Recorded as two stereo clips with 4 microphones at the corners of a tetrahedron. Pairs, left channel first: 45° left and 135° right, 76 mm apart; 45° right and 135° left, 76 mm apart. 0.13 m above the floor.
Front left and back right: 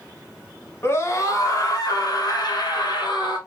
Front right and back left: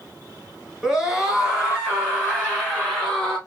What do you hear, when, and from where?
0.8 s a scream: 55° left, 1.2 m